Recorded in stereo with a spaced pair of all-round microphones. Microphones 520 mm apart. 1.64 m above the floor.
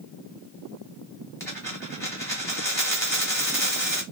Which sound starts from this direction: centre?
A dropped coin, at 1.4 s.